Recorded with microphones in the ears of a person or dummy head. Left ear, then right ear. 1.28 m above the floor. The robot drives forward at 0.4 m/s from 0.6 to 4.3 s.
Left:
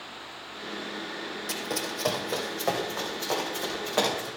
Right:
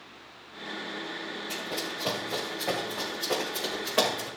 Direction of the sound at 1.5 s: 60° left (ahead or behind).